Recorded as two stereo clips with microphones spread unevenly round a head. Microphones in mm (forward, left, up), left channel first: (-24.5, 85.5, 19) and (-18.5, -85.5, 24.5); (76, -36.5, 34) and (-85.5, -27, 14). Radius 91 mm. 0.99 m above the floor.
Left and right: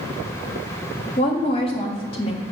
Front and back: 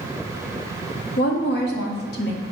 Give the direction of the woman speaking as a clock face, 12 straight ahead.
11 o'clock.